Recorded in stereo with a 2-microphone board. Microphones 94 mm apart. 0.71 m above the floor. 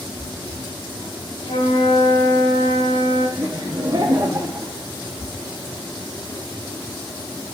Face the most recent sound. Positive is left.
turn(degrees=-35)  # may be behind; listen again after turning